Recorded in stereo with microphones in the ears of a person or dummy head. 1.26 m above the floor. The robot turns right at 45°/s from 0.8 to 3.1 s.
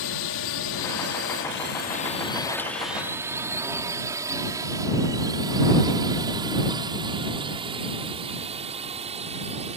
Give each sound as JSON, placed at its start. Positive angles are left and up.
{"t": 0.0, "sound": "a drone", "side_deg": 65}